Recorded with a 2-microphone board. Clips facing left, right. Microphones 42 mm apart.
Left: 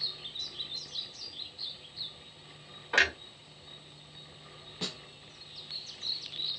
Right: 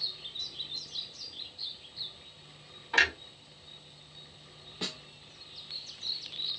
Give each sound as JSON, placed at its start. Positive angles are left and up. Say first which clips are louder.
{"t": 2.9, "sound": "a clunk", "louder": "even", "side_deg": 45, "distance_m": 1.5}
{"t": 4.8, "sound": "a snare drum", "louder": "right 1 dB", "side_deg": -5, "distance_m": 0.7}